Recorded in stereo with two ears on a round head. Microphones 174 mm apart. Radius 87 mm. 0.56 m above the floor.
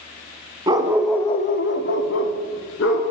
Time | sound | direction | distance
0.7 | a dog barking | 25° right (ahead or behind) | 0.9 m